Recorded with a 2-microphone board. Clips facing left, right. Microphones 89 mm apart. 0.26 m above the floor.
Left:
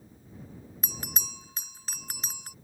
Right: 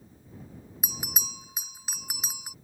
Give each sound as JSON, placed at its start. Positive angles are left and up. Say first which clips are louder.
{"t": 0.8, "sound": "a bell", "louder": "right 2 dB", "side_deg": -10}